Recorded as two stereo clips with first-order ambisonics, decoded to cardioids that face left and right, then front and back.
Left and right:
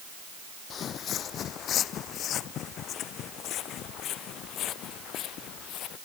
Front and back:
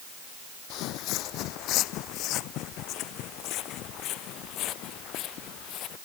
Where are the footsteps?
30° left; by 6.0 s 45° left.